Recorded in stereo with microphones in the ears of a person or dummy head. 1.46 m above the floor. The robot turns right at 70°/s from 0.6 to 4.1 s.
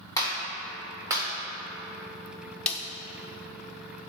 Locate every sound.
0.2 s a clap: 15° left (ahead or behind), 1.6 m; by 1.2 s 30° right (ahead or behind), 1.6 m
2.7 s a snare drum: 10° left (ahead or behind), 0.6 m; by 2.8 s 20° left (ahead or behind), 0.6 m